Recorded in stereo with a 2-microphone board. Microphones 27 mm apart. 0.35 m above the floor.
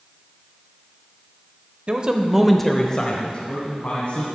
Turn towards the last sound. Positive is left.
turn(degrees=40)  # may be behind; listen again after turning